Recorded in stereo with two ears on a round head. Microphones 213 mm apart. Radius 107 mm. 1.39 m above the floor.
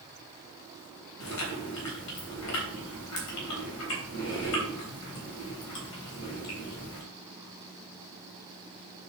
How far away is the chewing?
About 3.5 m.